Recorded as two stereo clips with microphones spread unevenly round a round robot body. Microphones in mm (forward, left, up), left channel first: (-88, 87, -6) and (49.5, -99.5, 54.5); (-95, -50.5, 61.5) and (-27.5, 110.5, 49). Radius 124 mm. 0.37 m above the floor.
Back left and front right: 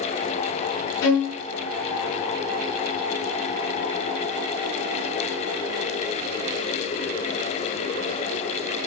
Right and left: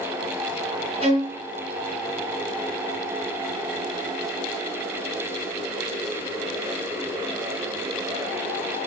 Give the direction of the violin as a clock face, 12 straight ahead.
8 o'clock.